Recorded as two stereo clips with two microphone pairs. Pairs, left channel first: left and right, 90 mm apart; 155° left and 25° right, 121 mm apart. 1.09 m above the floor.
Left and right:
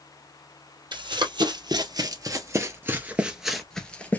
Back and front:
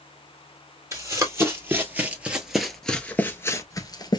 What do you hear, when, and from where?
0.9 s running footsteps: 80° right, 1.9 m; by 4.2 s 145° left, 1.2 m